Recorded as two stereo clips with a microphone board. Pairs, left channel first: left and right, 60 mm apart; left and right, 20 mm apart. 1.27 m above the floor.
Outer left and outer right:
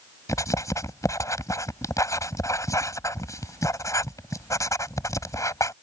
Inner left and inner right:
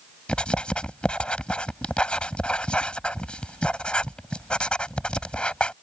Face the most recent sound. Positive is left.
turn(degrees=65)  # may be behind; listen again after turning